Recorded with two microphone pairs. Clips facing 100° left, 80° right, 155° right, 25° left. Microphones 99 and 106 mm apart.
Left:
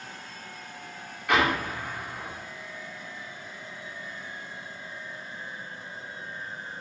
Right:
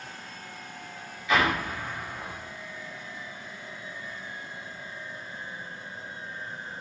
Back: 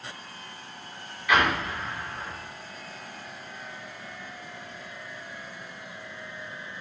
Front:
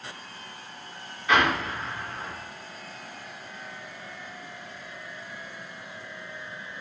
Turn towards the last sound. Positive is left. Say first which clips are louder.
# left 1 dB, front 1 dB
turn(degrees=80)